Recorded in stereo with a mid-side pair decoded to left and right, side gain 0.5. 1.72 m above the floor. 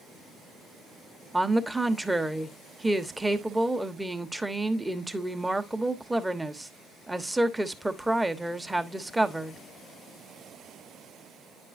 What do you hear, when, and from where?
1.3 s a woman speaking: 5° right, 1.2 m